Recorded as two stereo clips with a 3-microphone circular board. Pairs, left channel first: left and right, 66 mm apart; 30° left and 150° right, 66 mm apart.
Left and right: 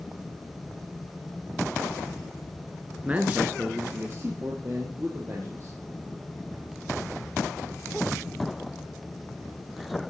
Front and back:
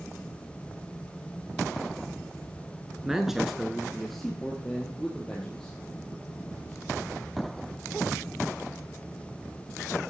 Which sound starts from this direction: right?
A man speaking, at 3.0 s.